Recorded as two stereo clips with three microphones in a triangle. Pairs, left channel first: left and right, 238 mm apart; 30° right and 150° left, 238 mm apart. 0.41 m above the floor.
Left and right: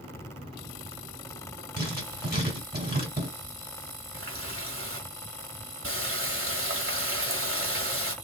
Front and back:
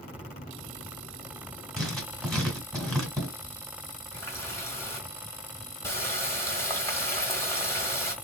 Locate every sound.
1.8 s writing: 120° right, 2.0 m
4.1 s a running tap: 110° right, 1.3 m